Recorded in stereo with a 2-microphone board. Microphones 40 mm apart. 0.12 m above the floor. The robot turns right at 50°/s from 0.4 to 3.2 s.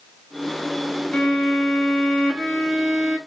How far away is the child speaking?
No child speaking in this recording.